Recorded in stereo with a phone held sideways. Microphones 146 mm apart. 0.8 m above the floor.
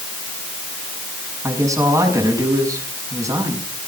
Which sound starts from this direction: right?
A woman speaking, at 1.4 s.